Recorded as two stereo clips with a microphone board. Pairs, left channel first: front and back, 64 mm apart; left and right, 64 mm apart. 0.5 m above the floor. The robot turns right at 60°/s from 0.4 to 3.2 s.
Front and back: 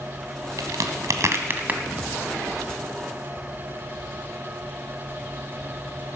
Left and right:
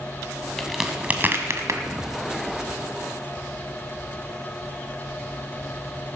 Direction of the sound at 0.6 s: 175° left.